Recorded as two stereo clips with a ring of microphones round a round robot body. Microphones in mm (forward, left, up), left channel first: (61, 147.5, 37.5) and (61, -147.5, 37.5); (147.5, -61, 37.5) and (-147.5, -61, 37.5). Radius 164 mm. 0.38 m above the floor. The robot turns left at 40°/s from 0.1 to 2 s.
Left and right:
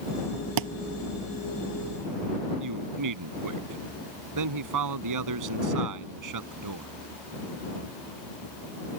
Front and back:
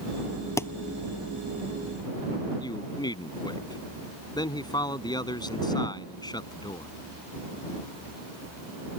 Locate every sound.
0.6 s a thud: 80° right; by 0.7 s 85° right
2.6 s a man speaking: 75° right